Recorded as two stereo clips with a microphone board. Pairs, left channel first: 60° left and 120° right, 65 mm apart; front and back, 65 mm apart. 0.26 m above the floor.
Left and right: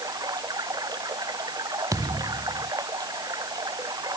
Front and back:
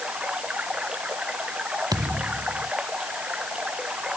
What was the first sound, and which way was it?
Running water, 105° right.